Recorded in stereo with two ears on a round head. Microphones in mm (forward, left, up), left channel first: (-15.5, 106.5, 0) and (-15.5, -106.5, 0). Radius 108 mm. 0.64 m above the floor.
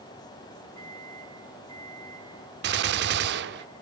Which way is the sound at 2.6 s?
45° right (ahead or behind).